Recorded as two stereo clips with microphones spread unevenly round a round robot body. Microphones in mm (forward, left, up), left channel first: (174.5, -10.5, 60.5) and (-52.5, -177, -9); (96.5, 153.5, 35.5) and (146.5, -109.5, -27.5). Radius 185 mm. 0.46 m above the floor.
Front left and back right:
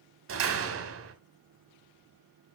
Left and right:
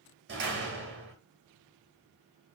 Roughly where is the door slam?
Behind right.